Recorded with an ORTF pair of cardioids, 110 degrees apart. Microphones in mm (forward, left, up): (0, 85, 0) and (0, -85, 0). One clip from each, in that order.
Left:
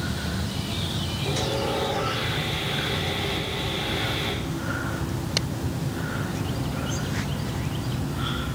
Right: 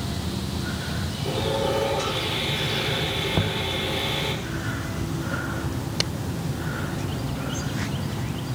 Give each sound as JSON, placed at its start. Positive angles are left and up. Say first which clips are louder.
{"t": 1.2, "sound": "sawing", "louder": "right 3 dB", "azimuth_deg": -20, "distance_m": 6.0}
{"t": 3.3, "sound": "knocking", "louder": "right 3 dB", "azimuth_deg": -65, "distance_m": 1.3}